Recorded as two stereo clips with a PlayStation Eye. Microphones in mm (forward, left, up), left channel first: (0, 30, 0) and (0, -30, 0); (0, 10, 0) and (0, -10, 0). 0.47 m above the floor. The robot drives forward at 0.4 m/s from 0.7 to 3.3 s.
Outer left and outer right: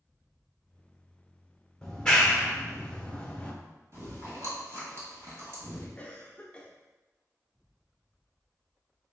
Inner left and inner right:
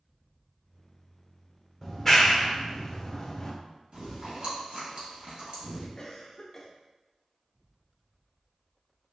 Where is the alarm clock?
No alarm clock in this recording.